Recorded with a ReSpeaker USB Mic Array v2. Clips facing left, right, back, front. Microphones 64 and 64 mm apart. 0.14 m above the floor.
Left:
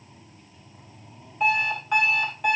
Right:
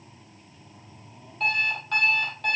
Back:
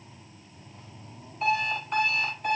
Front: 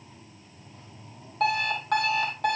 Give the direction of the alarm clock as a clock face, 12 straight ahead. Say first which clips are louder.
Left 3 dB, front 1 dB; 12 o'clock.